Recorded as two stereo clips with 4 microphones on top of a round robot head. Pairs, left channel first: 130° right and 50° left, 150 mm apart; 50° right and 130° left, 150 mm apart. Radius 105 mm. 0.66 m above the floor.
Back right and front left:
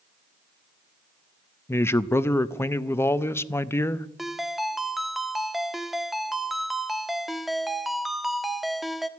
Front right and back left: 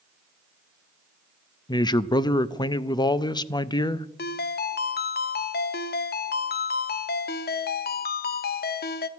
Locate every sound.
1.7 s a man speaking: 75° right, 0.7 m
4.2 s a ringtone: 40° right, 0.8 m